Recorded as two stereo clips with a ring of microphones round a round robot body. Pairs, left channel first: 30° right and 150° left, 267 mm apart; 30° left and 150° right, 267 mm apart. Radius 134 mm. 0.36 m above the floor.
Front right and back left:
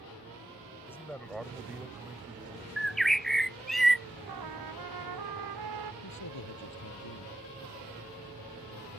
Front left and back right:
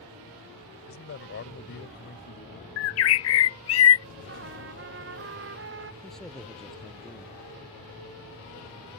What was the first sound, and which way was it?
A man speaking, 50° left.